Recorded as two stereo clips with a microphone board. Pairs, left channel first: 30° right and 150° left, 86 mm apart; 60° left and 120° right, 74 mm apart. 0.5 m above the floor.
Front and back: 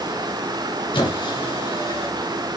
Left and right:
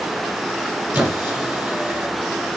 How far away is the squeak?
About 1.4 m.